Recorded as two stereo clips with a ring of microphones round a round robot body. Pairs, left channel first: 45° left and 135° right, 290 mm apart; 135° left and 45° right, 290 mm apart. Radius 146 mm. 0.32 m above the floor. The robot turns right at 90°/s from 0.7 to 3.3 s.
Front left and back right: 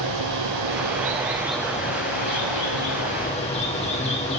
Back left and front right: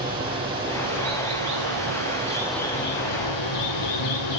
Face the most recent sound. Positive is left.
turn(degrees=115)